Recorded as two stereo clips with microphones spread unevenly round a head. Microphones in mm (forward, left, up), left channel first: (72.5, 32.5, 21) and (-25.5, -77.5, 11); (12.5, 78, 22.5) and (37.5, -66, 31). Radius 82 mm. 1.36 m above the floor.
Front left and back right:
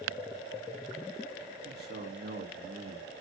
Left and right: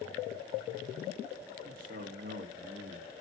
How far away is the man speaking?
About 1.8 m.